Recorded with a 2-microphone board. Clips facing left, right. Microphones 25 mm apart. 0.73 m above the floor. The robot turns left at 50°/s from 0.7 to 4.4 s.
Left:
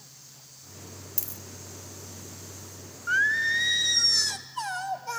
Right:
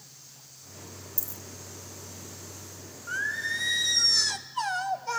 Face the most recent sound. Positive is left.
turn(degrees=-10)